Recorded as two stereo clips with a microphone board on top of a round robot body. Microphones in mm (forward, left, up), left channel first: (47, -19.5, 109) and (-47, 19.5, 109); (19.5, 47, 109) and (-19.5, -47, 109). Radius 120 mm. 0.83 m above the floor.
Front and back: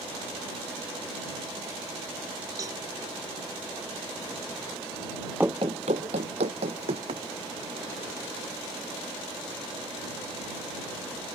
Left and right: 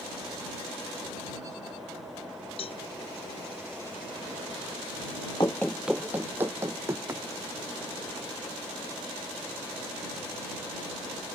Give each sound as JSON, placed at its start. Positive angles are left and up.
{"t": 2.6, "sound": "a cowbell", "azimuth_deg": 100}
{"t": 5.4, "sound": "running footsteps", "azimuth_deg": 90}